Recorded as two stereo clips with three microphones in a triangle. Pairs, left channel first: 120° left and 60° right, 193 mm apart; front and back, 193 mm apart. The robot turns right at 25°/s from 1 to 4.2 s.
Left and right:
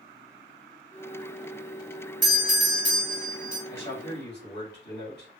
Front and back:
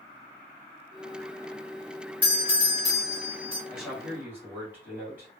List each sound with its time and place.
2.2 s a doorbell: 100° left, 2.0 m; by 3.6 s 135° left, 2.0 m
3.7 s a man speaking: 90° left, 2.0 m; by 5.3 s 100° left, 2.0 m